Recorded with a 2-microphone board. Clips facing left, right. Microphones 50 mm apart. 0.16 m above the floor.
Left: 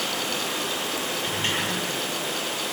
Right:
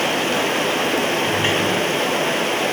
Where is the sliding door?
25° right (ahead or behind), 4.5 m.